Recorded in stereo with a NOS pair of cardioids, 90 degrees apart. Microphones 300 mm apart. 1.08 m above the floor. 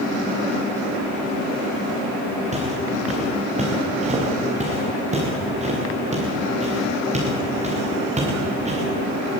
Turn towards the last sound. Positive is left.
turn(degrees=-20)